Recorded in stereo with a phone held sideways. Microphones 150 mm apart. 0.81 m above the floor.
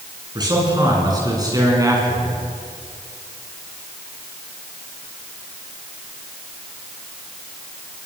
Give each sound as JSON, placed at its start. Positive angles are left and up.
{"t": 0.3, "sound": "a man speaking", "side_deg": -30, "distance_m": 8.5}